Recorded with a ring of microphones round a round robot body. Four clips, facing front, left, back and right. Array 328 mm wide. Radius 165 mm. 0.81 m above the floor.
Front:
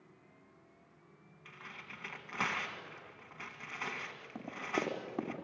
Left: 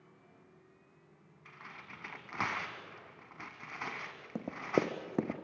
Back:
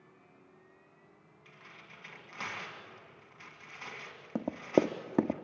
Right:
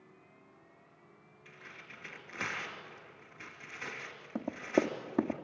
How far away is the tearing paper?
About 2 m.